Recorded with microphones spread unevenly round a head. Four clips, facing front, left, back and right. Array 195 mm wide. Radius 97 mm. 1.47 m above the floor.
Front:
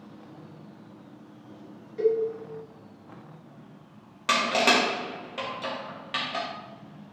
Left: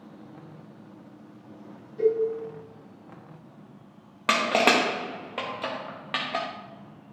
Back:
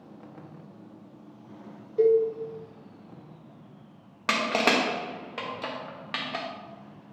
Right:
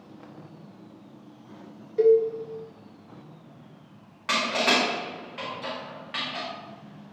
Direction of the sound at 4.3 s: 100° left.